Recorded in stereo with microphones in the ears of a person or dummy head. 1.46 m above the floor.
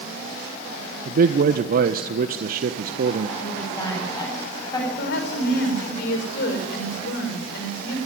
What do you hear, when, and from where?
1.1 s a man speaking: 50° right (ahead or behind), 1.4 m
3.4 s a woman speaking: 20° left (ahead or behind), 10 m
5.0 s a woman speaking: 65° left (ahead or behind), 6 m